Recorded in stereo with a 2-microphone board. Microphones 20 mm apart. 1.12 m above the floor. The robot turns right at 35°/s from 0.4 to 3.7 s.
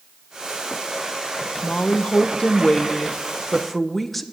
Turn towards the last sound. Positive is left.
turn(degrees=175)